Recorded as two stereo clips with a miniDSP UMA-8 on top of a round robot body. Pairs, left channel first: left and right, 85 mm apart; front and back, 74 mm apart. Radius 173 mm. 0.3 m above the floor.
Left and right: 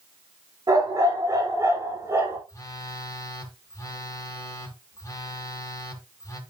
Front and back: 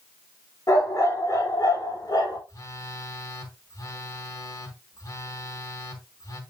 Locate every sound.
0.7 s a dog barking: 45° right, 5.5 m; by 2.4 s 30° right, 6 m
2.5 s a phone buzzing: 40° left, 3 m